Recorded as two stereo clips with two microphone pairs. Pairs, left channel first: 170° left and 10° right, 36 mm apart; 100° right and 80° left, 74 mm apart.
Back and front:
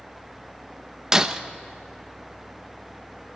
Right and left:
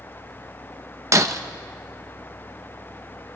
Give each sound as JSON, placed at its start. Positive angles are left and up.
{"t": 1.1, "sound": "breaking glass", "azimuth_deg": 55, "distance_m": 1.0}